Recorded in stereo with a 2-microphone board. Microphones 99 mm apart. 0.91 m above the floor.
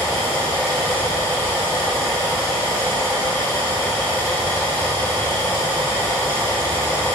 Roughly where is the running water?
Left.